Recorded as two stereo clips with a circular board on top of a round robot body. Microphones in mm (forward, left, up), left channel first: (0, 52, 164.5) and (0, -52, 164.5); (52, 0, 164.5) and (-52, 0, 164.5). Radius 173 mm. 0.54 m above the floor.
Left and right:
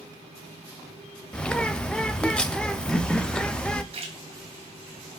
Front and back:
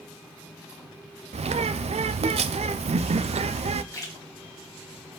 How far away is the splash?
About 1.3 m.